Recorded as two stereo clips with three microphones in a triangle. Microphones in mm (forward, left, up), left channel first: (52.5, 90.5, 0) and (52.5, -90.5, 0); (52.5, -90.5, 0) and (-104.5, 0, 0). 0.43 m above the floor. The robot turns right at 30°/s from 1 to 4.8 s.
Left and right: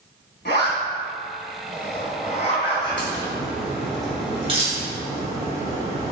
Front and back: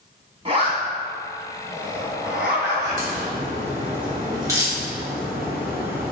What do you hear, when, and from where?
0.5 s a zipper: 95° left, 2.5 m; by 3.0 s 155° left, 2.5 m
2.9 s a crack: 170° left, 3 m; by 6.1 s 135° right, 3 m